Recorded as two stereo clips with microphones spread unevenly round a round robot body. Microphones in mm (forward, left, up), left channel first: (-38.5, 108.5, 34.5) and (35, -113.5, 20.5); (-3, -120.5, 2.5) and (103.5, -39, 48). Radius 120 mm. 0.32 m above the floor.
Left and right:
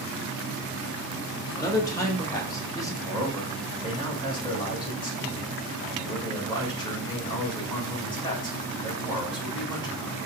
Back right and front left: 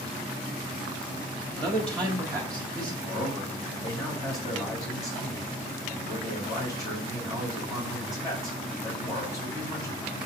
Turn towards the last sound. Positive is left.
turn(degrees=180)